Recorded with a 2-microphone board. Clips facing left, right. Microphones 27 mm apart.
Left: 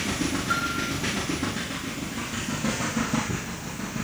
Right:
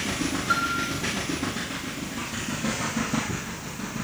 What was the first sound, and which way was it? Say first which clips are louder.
A piano: right 5 dB; 45° right (ahead or behind).